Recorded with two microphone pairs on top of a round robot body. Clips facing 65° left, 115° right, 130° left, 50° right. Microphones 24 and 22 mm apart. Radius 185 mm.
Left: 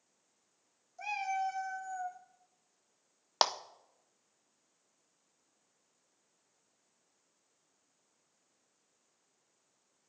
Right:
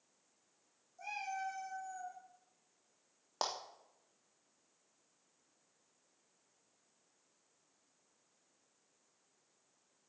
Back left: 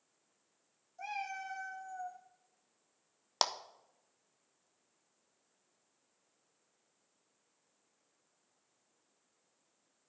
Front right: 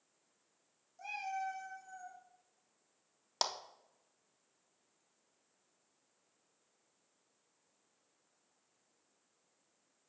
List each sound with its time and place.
1.0 s a cat meowing: 115° left, 1.4 m; by 2.2 s 150° left, 1.4 m
3.4 s a clap: 65° left, 0.8 m